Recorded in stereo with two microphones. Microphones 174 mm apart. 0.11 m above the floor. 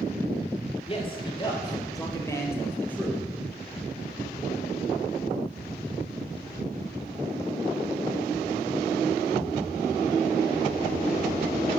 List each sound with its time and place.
0.9 s a man speaking: 30° left (ahead or behind), 2.5 m; by 3.2 s 5° left (ahead or behind), 3 m